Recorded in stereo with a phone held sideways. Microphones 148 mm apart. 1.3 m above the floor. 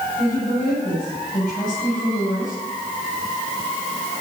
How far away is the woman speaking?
About 9 m.